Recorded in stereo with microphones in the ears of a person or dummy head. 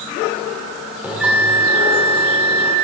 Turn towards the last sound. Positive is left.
turn(degrees=0)  # may be behind; listen again after turning